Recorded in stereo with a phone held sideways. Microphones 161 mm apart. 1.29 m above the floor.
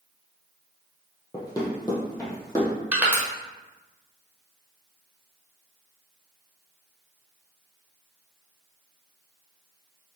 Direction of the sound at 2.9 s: 10° right (ahead or behind).